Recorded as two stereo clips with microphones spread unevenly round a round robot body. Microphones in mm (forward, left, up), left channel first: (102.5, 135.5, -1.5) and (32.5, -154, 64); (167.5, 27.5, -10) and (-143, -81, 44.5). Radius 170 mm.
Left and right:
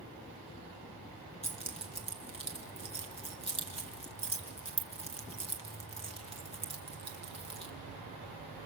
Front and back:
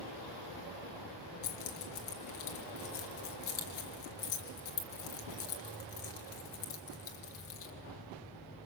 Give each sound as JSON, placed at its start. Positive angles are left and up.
{"t": 1.4, "sound": "keys jangling", "azimuth_deg": -30, "distance_m": 3.0}